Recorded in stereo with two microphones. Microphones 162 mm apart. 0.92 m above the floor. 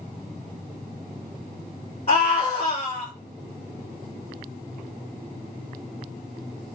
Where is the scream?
40° left (ahead or behind), 2 m.